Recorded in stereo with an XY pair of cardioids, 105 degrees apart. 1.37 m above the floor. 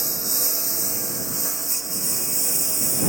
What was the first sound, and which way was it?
A lawn mower, 15° right.